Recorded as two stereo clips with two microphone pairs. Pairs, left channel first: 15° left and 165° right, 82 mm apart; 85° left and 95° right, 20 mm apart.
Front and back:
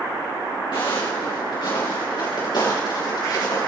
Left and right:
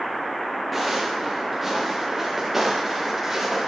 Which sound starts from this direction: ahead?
Footsteps, at 0.7 s.